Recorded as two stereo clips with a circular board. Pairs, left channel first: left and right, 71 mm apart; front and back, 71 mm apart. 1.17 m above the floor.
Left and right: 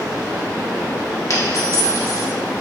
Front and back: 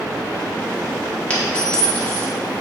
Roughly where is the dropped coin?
Ahead left.